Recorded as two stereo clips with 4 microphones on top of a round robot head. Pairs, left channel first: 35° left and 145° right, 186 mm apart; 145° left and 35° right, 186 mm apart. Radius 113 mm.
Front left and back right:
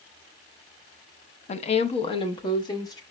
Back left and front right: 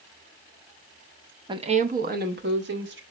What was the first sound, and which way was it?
A woman speaking, 15° left.